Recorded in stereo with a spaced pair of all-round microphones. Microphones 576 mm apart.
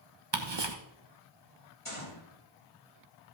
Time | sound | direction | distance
0.3 | ticking | 45° right (ahead or behind) | 1.1 m
1.9 | a gunshot | 65° left (ahead or behind) | 2.5 m